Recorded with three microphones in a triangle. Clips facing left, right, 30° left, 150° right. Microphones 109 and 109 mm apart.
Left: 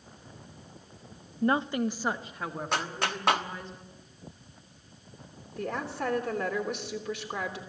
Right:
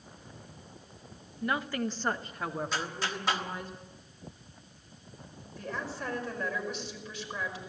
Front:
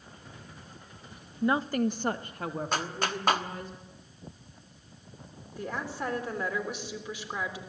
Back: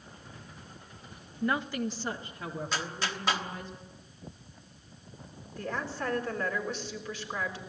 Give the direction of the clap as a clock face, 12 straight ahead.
10 o'clock.